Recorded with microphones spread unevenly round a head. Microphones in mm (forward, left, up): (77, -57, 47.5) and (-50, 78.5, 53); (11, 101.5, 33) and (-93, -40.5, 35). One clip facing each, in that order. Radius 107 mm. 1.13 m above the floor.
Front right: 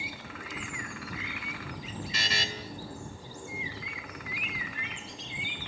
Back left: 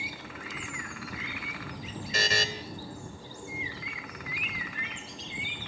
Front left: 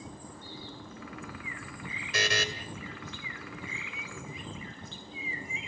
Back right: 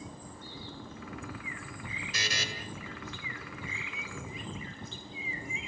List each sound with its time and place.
2.1 s a buzzer: 85° left, 2.5 m